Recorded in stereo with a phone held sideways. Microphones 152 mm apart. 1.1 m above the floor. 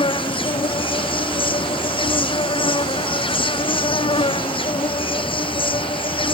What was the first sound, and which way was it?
An insect, 35° left (ahead or behind).